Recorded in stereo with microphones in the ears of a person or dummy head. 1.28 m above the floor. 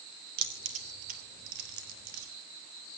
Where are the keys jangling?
35° right (ahead or behind), 2.5 m; by 2.3 s 65° right (ahead or behind), 4.5 m.